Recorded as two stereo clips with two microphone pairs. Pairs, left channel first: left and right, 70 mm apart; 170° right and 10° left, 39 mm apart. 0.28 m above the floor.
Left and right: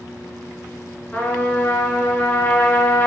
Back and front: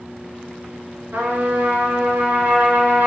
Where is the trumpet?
30° left, 0.7 m.